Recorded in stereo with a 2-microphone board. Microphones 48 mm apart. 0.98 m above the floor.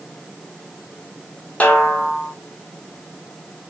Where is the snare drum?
30° left (ahead or behind), 0.9 m.